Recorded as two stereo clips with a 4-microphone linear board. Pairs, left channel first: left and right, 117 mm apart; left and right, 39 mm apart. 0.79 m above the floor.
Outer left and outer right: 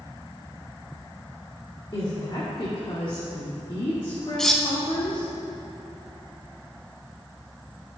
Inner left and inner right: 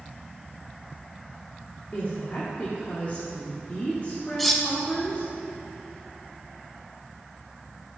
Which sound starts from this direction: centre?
Cutlery clinking, at 4.4 s.